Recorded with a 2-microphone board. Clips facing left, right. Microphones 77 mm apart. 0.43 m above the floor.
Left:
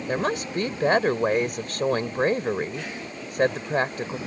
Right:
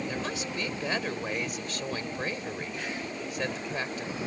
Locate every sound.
0.1 s a woman speaking: 50° left (ahead or behind)